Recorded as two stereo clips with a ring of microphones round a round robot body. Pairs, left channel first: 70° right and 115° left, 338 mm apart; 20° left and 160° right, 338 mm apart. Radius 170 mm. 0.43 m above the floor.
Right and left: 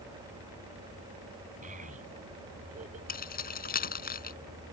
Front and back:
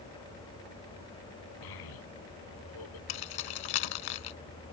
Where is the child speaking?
45° left.